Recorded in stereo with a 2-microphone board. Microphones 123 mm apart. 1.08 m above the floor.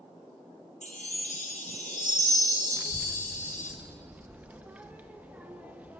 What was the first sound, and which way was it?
A chime, 85° left.